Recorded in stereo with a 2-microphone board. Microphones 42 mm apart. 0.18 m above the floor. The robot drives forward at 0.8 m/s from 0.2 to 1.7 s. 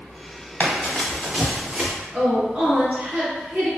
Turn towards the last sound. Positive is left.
turn(degrees=-30)  # may be behind; listen again after turning